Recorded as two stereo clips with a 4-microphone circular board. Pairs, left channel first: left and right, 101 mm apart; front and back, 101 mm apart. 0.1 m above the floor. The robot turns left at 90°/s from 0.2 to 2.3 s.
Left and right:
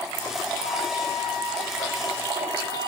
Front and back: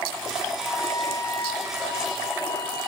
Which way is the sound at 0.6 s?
100° left.